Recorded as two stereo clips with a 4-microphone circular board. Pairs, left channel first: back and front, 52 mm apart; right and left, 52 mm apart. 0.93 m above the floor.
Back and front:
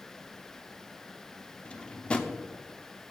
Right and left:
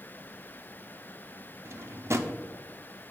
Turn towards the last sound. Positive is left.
turn(degrees=115)